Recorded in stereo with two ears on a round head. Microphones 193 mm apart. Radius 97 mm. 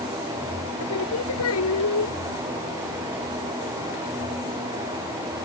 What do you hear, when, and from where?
0.8 s singing: 80° left